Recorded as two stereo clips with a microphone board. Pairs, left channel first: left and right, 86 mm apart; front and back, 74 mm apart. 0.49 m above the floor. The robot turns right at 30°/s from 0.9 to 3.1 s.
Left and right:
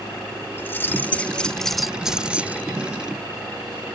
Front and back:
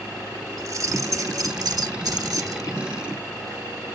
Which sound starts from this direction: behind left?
Keys jangling, at 0.6 s.